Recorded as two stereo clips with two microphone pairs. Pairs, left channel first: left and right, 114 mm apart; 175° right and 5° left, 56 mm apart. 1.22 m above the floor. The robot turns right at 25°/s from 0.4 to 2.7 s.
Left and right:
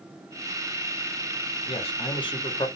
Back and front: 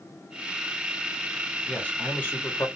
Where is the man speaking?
115° left, 1.1 m; by 2.7 s 140° left, 1.1 m.